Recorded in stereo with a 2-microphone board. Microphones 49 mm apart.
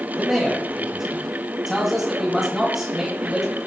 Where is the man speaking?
Centre (ahead or behind), 9 m.